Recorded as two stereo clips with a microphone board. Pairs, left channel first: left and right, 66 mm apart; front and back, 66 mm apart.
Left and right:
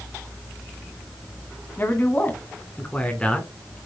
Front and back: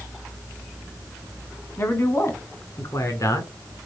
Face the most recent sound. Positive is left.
turn(degrees=15)